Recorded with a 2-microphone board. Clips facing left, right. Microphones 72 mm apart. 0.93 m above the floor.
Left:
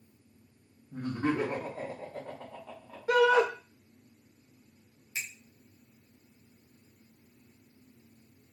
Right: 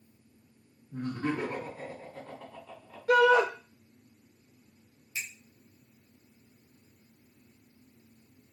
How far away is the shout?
About 1.2 m.